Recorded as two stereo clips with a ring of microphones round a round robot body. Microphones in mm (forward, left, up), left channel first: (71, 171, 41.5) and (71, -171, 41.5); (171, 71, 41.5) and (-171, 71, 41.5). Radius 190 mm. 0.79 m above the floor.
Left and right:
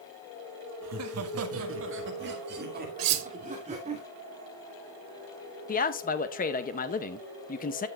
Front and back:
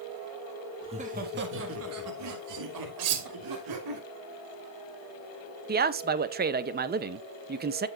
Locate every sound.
0.8 s laughter: 110° right, 1.4 m; by 4.0 s 160° right, 3 m
3.0 s cutlery clinking: 130° right, 0.7 m
5.7 s a man speaking: 135° left, 0.7 m